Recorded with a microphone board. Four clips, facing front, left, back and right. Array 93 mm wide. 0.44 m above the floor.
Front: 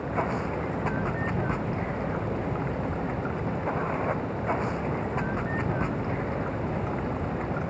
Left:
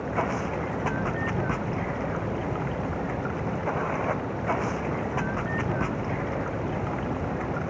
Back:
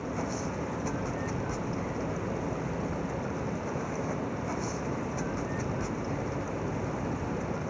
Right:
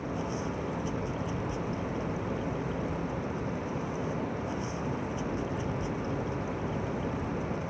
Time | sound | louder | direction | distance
0.0 | running water | left 6 dB, front 5 dB | 55° left | ?